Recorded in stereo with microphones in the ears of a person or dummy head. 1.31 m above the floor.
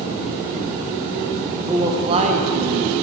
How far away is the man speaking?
About 1.0 m.